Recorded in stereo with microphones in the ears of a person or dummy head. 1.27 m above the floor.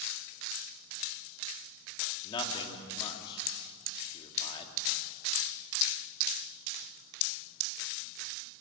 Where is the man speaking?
25° left (ahead or behind), 2.5 m.